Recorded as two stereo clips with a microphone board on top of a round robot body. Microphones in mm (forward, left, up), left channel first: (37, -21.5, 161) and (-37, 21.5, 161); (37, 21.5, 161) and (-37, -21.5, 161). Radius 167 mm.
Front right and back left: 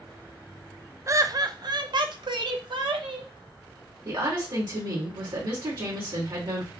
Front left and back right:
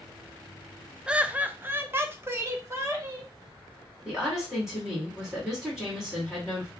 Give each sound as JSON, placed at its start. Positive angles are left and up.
{"t": 1.1, "sound": "laughter", "azimuth_deg": 140, "distance_m": 0.6}
{"t": 4.0, "sound": "a woman speaking", "azimuth_deg": 125, "distance_m": 2.5}